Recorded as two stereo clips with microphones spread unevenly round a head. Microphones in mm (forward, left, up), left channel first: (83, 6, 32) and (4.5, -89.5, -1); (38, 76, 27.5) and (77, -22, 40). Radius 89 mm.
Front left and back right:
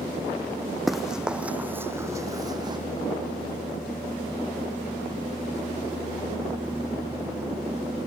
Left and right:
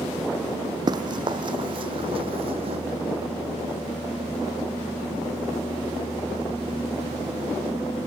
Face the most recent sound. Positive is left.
turn(degrees=-70)